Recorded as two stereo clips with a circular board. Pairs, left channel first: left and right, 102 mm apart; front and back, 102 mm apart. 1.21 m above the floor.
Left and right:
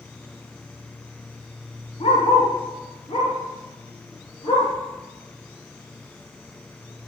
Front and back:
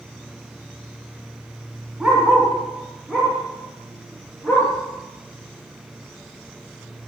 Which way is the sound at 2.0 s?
95° left.